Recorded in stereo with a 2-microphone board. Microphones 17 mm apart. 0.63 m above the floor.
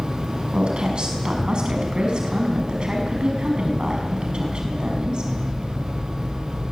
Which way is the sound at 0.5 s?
55° right (ahead or behind).